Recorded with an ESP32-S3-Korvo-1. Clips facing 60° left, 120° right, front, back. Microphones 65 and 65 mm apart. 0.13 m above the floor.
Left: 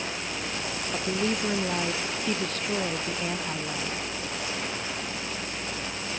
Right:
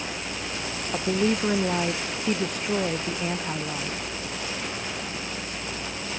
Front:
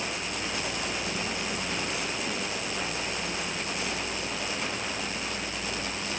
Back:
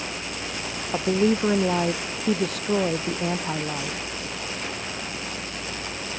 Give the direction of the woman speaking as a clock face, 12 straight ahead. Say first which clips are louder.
Right 5 dB, back 11 dB; 6 o'clock.